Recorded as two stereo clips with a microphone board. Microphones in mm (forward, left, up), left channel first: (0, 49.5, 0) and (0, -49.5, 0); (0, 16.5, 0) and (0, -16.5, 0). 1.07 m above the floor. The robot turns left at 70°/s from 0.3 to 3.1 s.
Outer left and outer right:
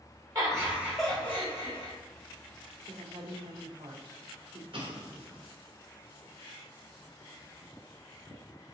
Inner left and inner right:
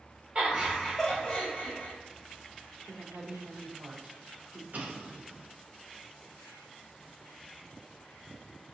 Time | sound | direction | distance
0.3 | laughter | 135° right | 1.9 m
2.9 | a woman speaking | 65° right (ahead or behind) | 0.7 m
4.7 | an explosion | 60° right (ahead or behind) | 0.8 m